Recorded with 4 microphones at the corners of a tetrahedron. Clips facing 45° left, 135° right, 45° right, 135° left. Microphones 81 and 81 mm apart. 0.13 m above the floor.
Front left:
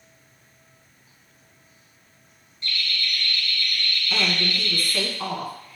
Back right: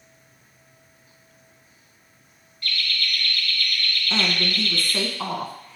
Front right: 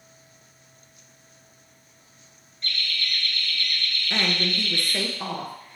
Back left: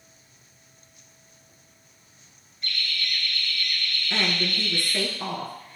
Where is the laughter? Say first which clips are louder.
Back right 1 dB, front right 1 dB; 55° left, 1.3 m.